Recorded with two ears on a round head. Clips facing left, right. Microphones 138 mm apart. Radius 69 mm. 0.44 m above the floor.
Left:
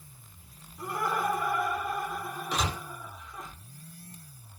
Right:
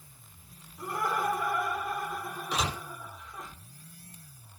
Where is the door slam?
5° right (ahead or behind), 0.6 m.